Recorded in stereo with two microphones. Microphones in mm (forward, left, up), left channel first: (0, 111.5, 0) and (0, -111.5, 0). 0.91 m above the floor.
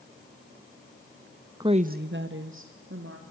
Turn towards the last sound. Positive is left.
turn(degrees=-65)  # may be behind; listen again after turning